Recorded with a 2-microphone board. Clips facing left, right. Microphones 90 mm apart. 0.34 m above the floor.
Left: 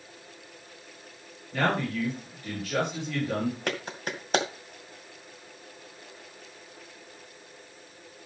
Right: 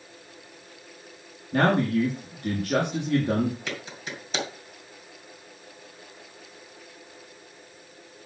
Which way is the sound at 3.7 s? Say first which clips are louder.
Left 3 dB; 55° left (ahead or behind).